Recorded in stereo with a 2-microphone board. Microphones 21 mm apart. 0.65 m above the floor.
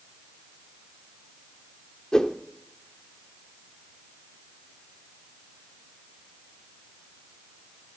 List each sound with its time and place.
2.1 s a whoosh: 30° left (ahead or behind), 0.7 m